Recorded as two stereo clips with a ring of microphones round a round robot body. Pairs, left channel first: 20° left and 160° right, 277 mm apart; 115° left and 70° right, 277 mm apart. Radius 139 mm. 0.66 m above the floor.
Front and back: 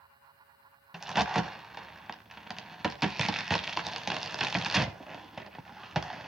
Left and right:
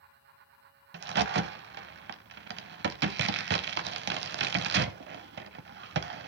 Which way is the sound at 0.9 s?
70° right.